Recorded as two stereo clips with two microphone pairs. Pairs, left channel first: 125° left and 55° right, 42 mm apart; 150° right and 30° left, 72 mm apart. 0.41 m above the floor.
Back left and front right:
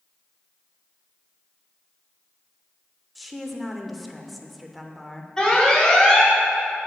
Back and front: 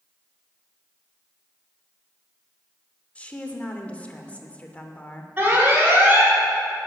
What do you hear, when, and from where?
3.1 s a woman speaking: 145° right, 0.8 m
5.4 s an alarm: 65° left, 2 m